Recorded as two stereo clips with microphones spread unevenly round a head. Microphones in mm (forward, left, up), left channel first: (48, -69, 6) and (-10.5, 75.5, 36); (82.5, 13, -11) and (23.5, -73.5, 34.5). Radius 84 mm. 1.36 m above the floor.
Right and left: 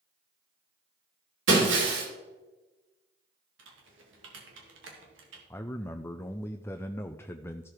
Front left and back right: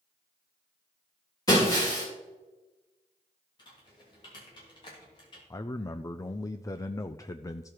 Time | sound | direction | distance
1.5 | breaking glass | 130° left | 3 m
3.6 | typing on a keyboard | 110° left | 2.5 m
5.5 | a man speaking | 5° left | 0.5 m